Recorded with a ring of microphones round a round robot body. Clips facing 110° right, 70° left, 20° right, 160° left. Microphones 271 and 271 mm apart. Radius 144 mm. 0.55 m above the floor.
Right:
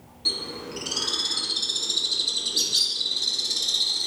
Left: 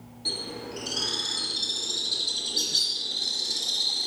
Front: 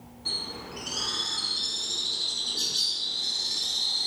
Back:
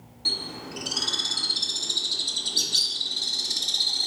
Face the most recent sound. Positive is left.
turn(degrees=170)